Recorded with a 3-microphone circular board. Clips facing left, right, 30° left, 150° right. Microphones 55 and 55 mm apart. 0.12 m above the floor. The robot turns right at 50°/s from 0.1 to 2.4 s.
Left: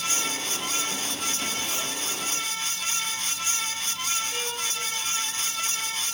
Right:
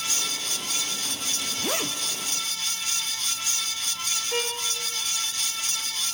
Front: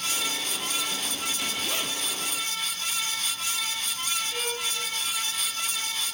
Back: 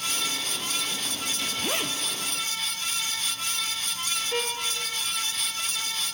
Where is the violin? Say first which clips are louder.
Right 3 dB, back 3 dB; 125° right, 7 m.